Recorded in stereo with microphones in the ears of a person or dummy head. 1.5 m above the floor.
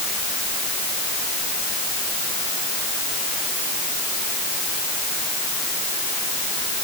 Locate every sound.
Only background noise.